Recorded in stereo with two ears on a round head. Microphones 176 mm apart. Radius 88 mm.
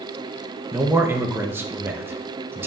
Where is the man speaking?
10° right (ahead or behind), 0.7 m.